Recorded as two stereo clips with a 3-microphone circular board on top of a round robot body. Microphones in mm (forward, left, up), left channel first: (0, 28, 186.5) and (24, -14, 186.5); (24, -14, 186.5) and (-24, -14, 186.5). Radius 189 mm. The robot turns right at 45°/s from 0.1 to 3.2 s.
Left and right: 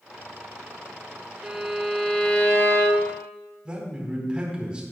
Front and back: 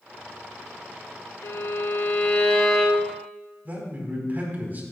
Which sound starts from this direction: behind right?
A man speaking, at 3.6 s.